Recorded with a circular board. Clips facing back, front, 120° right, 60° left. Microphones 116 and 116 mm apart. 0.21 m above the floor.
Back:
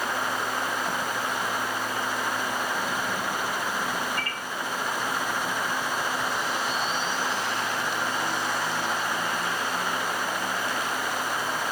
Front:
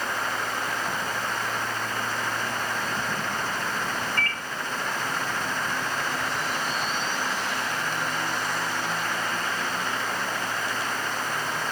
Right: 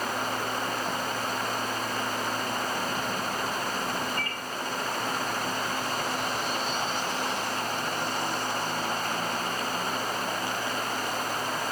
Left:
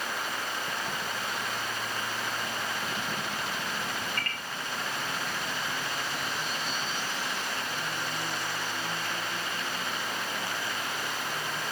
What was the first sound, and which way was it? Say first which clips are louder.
A microwave: front 2 dB, right 3 dB; 140° right.